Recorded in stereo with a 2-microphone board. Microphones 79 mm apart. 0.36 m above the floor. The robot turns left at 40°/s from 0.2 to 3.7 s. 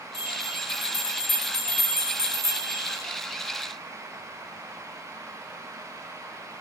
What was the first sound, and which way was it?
A bell, 135° right.